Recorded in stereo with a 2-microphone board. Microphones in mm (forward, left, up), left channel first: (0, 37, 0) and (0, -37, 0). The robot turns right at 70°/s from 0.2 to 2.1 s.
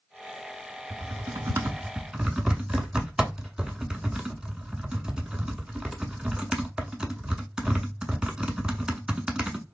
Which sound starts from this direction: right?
Typing on a keyboard, at 0.9 s.